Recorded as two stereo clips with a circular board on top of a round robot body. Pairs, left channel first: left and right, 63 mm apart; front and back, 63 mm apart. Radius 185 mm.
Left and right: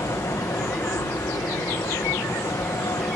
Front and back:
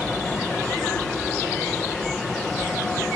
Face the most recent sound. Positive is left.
turn(degrees=85)